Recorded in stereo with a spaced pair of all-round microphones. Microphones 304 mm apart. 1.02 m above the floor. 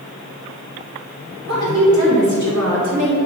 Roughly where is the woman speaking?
Right.